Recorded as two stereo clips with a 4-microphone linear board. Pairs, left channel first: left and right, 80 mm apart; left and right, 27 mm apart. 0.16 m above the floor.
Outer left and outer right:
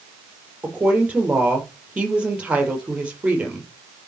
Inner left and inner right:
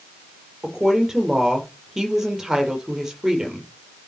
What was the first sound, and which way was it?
A woman speaking, 15° right (ahead or behind).